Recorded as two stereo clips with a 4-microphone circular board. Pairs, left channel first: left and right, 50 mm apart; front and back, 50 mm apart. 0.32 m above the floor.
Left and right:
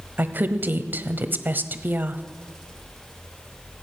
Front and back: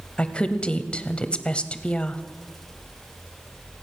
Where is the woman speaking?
60° right, 1.3 m.